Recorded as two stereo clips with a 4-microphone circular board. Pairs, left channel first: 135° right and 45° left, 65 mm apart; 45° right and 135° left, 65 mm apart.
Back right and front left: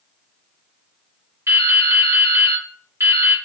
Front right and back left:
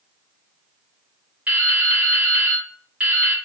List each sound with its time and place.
1.5 s dripping: 70° left, 1.0 m